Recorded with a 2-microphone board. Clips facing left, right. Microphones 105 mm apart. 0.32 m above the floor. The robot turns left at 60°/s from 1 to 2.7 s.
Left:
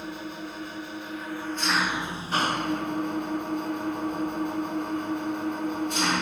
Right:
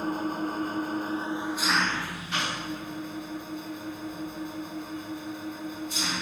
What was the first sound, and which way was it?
An engine running, 135° right.